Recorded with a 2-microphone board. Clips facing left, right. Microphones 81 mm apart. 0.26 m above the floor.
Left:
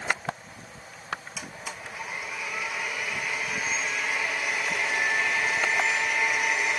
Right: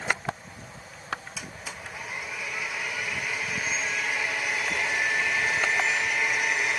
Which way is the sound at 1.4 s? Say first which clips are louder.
Left 1 dB; centre (ahead or behind).